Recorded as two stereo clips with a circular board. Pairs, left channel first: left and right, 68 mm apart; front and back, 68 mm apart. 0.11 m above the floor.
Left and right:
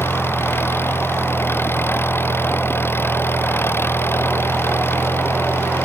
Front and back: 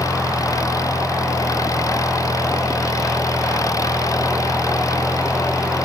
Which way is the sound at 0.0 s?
35° left.